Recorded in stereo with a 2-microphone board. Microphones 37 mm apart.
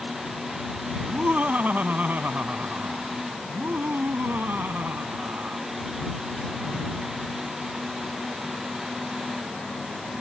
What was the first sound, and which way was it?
Laughter, 45° right (ahead or behind).